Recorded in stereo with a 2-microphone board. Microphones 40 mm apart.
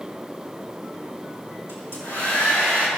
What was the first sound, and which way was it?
A hair dryer, 85° left.